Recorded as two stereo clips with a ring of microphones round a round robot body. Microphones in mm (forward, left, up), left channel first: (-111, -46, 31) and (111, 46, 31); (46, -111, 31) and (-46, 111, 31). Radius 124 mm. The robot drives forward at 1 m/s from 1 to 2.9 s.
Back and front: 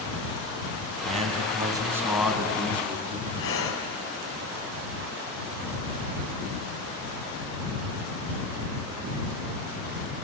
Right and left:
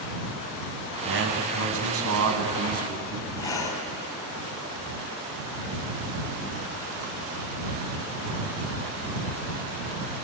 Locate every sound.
1.1 s a man speaking: 80° left, 2.5 m; by 3.3 s 120° left, 3 m
3.4 s breathing: 140° right, 2.5 m